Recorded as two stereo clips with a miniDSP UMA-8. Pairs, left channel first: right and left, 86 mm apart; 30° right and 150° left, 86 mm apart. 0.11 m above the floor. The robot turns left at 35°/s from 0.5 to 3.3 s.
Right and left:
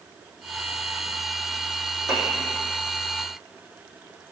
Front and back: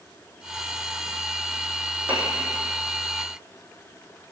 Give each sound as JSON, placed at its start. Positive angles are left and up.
{"t": 2.1, "sound": "a piano", "azimuth_deg": -140, "distance_m": 3.5}